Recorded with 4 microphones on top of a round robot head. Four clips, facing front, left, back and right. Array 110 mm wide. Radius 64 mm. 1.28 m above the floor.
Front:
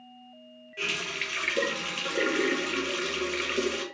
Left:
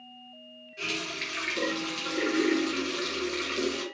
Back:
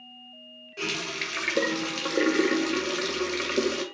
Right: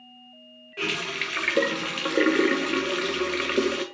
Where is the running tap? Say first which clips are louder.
Right 5 dB, back 2 dB; 115° right, 0.5 m.